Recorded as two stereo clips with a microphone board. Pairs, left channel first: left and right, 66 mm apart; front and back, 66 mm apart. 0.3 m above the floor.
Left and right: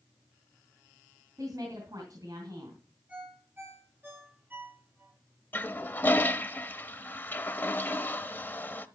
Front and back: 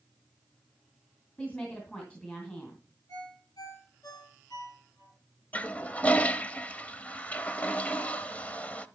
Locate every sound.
1.4 s a woman speaking: 70° right, 3 m
3.1 s a ringtone: 25° right, 5 m
5.5 s a toilet flushing: 50° left, 0.6 m